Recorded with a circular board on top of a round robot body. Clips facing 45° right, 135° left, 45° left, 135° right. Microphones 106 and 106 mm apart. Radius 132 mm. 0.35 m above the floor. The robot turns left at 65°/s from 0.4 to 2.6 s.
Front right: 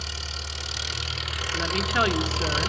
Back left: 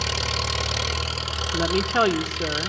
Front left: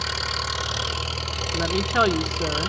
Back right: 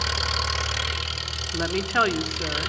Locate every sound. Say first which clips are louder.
0.0 s an engine running: back left 11 dB, back right 1 dB; 135° left, 0.9 m; by 2.7 s 10° right, 0.9 m
1.5 s a woman speaking: back left 4 dB, front left 1 dB; 135° left, 1.0 m; by 2.7 s 65° left, 1.0 m